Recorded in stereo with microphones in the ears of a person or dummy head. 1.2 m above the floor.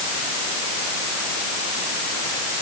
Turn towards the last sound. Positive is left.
No sound to turn to.